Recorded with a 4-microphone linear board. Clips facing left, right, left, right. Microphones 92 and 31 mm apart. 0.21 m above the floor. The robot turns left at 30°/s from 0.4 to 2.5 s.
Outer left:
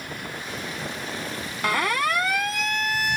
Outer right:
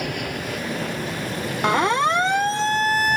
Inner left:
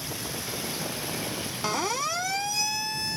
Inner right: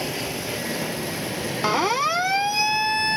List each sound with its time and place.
0.0 s an aircraft: 80° right; by 3.2 s 140° right
1.6 s a siren: 25° right (ahead or behind); by 3.2 s 40° right (ahead or behind)